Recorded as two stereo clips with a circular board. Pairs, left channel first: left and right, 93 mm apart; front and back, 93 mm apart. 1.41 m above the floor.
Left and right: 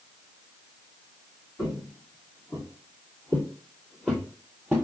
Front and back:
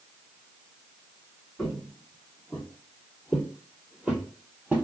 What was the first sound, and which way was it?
Footsteps, 85° left.